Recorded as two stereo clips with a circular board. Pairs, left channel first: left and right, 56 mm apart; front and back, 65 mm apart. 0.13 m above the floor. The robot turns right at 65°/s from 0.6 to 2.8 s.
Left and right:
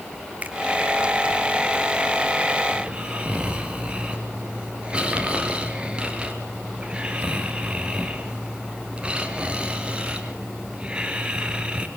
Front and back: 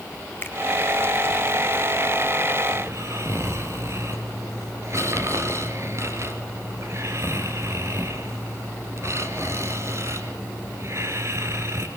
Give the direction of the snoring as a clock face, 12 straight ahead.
5 o'clock.